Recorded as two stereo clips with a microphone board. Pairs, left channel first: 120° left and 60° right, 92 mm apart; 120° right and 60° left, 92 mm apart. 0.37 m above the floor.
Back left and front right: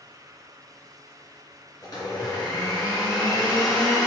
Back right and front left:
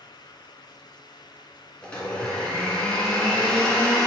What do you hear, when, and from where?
1.8 s a blender: 165° left, 2.5 m